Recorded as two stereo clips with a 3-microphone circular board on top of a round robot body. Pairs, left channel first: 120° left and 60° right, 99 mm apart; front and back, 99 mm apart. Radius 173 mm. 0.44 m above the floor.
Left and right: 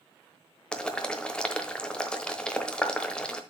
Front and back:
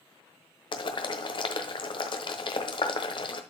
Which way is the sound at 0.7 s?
40° left.